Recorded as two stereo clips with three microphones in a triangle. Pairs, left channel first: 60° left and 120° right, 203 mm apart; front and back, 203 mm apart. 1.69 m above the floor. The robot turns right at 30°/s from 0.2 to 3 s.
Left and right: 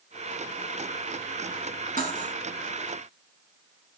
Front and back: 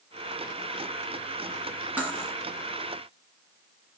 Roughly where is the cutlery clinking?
Right.